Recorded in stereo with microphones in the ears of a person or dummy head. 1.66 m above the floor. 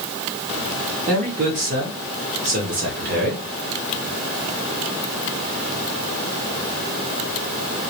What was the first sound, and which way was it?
A man speaking, 45° right (ahead or behind).